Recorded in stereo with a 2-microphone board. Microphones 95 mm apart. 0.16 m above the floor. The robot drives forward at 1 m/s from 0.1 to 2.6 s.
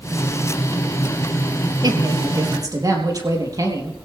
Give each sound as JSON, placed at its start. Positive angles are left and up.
{"t": 1.8, "sound": "a woman speaking", "side_deg": -45, "distance_m": 3.5}